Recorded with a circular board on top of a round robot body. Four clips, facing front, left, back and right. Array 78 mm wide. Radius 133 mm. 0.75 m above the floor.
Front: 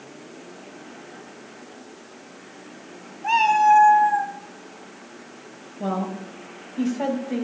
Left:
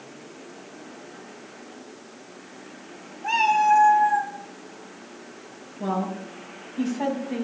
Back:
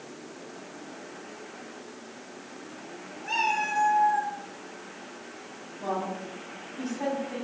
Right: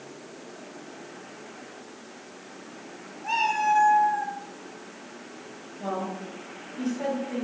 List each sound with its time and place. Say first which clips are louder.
3.2 s a cat meowing: left 5 dB, front 12 dB; 20° left, 3 m; by 4.3 s 25° left, 2.5 m
5.8 s a woman speaking: left 4 dB, front 4 dB; 15° left, 6 m